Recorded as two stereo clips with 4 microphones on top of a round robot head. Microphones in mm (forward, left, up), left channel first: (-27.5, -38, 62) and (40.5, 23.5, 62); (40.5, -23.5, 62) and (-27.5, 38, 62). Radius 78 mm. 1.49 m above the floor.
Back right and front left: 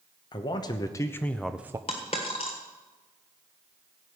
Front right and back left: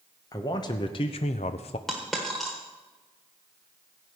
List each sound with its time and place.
0.3 s a man speaking: 95° right, 1.2 m; by 1.8 s 15° right, 0.5 m
1.9 s a dropped coin: 130° right, 1.4 m